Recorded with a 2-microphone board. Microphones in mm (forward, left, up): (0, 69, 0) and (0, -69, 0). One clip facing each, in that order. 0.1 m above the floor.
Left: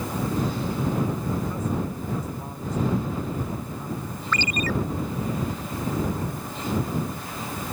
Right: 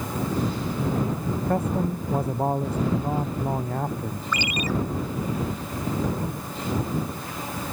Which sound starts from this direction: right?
A man speaking, at 1.4 s.